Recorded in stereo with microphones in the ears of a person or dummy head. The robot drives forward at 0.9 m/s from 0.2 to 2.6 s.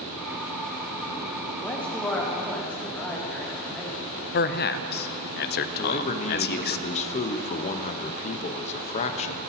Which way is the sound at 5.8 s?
35° left (ahead or behind).